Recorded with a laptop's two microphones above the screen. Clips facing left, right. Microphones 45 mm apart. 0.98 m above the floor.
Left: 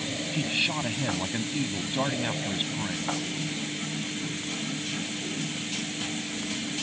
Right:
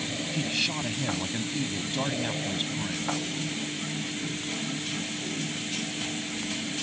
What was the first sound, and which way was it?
A man speaking, 15° left (ahead or behind).